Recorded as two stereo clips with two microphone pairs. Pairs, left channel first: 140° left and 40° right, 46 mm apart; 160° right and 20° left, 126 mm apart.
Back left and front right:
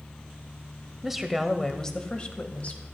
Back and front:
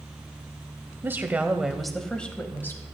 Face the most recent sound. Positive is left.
turn(degrees=140)